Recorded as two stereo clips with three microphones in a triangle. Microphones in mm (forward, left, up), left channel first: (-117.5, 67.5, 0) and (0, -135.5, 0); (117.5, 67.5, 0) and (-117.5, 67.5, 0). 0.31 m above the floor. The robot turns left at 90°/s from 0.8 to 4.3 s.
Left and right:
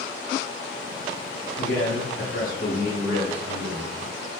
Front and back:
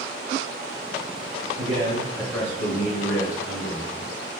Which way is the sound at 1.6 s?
155° left.